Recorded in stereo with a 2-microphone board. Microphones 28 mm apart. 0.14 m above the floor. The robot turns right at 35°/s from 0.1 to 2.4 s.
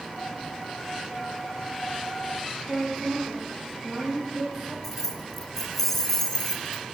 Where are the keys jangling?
15° left (ahead or behind), 0.7 m.